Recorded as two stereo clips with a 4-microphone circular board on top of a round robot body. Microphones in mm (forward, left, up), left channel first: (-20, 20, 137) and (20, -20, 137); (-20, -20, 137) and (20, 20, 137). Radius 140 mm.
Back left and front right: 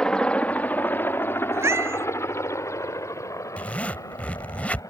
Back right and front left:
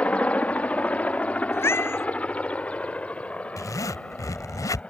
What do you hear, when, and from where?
0.0 s a helicopter: 170° right; by 4.9 s 155° left
1.5 s a cat meowing: 90° right
3.6 s a zipper: 160° right